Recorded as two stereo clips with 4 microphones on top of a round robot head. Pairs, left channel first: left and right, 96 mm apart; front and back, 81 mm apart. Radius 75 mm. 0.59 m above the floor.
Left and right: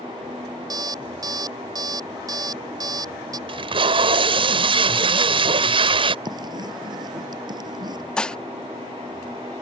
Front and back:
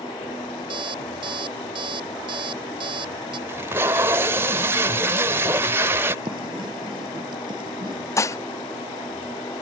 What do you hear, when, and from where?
0.7 s an alarm clock: 140° right
3.5 s tape being pulled: 115° right
6.2 s writing: 135° right
8.2 s dishes clattering: 15° left